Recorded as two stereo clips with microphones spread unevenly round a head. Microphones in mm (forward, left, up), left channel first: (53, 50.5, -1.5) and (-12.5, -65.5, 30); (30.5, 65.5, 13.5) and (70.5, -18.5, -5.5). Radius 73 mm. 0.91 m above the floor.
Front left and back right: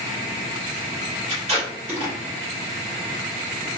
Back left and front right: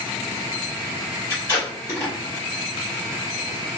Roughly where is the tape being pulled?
Behind.